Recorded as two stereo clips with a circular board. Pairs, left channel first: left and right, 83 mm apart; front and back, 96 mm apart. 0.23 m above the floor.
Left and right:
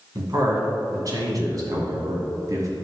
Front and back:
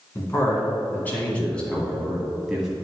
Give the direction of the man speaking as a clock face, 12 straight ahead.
2 o'clock.